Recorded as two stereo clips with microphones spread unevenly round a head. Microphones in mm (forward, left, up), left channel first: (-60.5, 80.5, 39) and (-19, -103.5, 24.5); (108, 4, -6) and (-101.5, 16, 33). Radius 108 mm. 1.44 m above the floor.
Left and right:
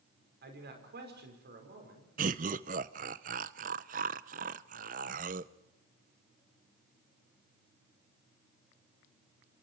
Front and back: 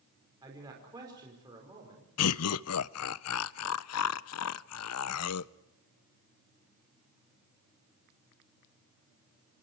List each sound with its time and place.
0.4 s a man speaking: 110° right, 5.5 m
2.2 s laughter: 25° right, 0.5 m